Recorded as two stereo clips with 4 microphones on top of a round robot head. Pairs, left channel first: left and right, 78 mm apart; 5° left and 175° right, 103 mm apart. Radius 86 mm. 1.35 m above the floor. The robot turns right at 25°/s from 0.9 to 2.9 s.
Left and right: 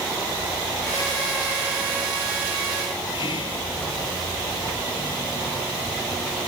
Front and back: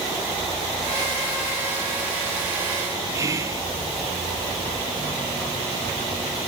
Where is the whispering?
120° left, 0.7 m.